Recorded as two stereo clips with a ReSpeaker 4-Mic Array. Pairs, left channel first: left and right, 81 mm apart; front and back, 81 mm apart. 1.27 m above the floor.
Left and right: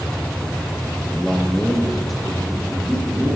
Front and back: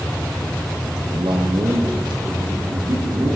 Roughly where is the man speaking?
Behind.